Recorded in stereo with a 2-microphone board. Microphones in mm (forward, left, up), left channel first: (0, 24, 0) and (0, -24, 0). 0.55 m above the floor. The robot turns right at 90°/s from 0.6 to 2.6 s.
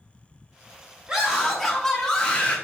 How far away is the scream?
About 0.9 m.